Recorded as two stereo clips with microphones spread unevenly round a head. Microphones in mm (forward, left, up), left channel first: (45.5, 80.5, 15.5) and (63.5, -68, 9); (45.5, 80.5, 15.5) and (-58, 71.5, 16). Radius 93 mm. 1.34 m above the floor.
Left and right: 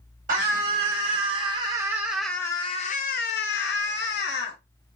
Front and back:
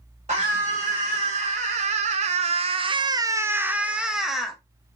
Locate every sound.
0.3 s a scream: 130° right, 1.3 m; by 4.6 s 95° left, 1.1 m